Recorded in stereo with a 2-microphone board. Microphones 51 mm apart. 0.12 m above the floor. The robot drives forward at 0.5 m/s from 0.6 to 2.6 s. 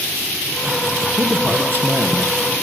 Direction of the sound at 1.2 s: 40° right (ahead or behind).